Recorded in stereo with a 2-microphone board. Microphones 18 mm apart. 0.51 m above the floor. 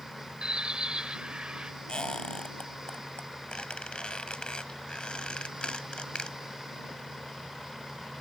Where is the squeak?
70° left (ahead or behind).